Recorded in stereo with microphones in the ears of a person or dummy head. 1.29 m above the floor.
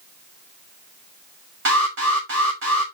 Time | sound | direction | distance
1.6 | an alarm | 65° right (ahead or behind) | 2.5 m